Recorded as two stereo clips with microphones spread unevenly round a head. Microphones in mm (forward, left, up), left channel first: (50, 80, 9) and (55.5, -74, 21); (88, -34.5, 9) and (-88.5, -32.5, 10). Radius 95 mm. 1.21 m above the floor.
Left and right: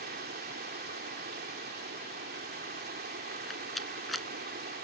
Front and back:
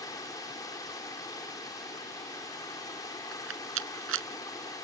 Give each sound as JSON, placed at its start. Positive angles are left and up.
{"t": 0.0, "sound": "running water", "azimuth_deg": -70}
{"t": 3.3, "sound": "a rattle", "azimuth_deg": 180}